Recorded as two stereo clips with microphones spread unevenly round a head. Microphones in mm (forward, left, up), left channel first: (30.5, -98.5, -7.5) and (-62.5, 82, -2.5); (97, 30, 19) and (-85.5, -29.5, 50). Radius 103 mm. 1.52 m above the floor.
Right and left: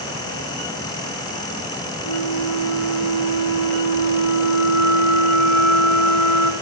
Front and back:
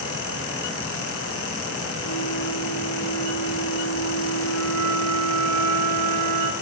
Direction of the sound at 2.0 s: 60° right.